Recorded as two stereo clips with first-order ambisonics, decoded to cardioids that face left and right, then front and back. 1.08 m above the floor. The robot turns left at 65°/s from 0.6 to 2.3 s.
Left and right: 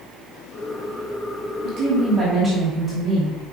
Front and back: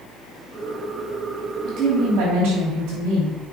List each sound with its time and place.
1.6 s a woman speaking: 125° right, 2.5 m; by 3.4 s 165° right, 2.5 m